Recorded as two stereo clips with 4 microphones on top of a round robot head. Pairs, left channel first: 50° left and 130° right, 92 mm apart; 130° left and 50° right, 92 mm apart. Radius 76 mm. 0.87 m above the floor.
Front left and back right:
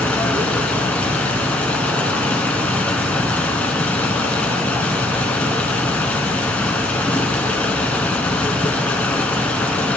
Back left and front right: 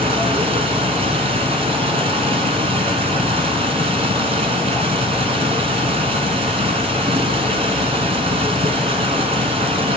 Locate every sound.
0.0 s running water: 25° right, 1.6 m